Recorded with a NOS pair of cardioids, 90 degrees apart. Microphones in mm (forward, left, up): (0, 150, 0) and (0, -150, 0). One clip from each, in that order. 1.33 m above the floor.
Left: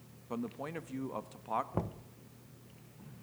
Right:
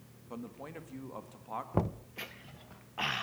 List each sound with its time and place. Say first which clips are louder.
0.3 s a man speaking: left 5 dB; 30° left, 1.7 m
1.7 s knocking: right 5 dB; 20° right, 0.6 m